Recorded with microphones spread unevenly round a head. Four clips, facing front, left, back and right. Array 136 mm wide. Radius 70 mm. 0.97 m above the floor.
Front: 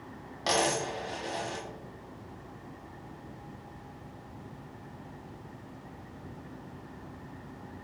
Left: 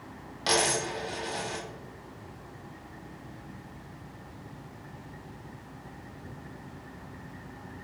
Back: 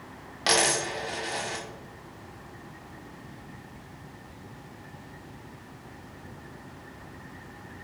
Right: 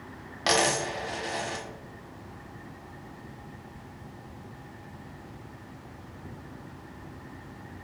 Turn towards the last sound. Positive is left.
turn(degrees=-150)